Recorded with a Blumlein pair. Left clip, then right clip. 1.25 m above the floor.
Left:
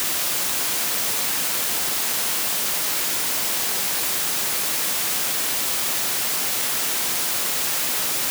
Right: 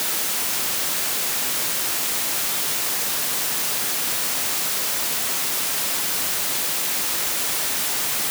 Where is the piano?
No piano in this recording.